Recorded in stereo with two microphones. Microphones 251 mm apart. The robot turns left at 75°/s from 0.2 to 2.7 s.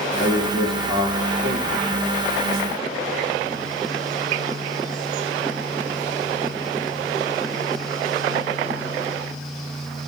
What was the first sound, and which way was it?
A man speaking, 40° left.